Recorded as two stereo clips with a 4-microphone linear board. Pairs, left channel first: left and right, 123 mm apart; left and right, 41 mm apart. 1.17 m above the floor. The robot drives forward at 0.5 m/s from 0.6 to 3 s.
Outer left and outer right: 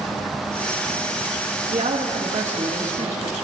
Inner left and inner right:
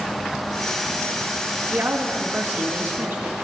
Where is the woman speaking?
75° right (ahead or behind), 1.8 m; by 3.3 s 60° right (ahead or behind), 2 m.